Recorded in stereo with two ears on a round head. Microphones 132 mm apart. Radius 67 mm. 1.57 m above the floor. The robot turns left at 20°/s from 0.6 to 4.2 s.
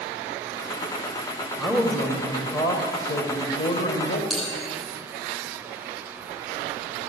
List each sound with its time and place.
1.6 s a man speaking: 170° left, 1.6 m; by 4.2 s 120° left, 1.6 m
4.3 s a bell: centre (ahead or behind), 7 m